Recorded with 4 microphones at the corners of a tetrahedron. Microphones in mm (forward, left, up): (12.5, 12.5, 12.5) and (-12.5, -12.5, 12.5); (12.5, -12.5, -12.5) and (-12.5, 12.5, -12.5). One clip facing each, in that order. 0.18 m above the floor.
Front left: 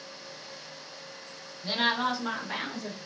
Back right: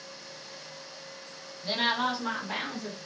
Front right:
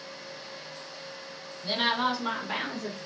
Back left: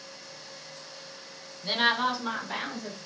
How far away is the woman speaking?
About 1.1 m.